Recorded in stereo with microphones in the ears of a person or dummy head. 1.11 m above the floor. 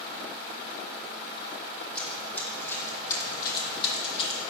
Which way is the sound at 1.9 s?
10° left (ahead or behind).